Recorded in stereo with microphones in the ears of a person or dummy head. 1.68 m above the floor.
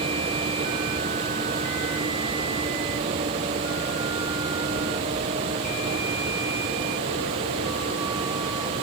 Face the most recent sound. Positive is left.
No sound to turn to.